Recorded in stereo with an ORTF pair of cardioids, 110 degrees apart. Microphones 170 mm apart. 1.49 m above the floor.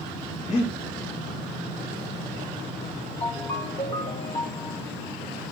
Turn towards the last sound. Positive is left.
turn(degrees=30)